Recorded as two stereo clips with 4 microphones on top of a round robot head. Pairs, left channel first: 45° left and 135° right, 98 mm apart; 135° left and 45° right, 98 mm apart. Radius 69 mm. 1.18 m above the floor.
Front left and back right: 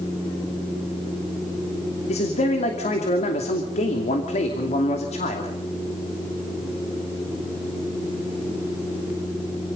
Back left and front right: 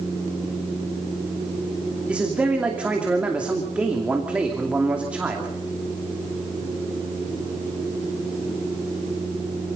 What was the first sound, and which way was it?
A man speaking, 35° left.